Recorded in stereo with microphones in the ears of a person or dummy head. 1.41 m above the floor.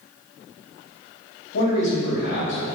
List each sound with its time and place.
1.5 s a man speaking: 65° left (ahead or behind), 1.5 m